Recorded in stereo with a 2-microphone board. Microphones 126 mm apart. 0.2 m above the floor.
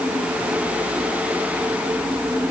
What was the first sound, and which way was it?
Only background noise.